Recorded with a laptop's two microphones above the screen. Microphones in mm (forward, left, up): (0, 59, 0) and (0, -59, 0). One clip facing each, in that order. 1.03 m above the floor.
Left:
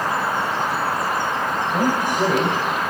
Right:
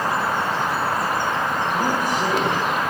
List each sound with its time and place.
1.7 s a man speaking: 60° left (ahead or behind), 5.5 m